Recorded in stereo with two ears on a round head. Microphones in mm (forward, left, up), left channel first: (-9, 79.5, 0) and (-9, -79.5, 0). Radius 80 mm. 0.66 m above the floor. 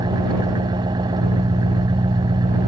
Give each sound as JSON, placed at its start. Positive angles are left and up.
{"t": 0.0, "sound": "an engine running", "side_deg": -25}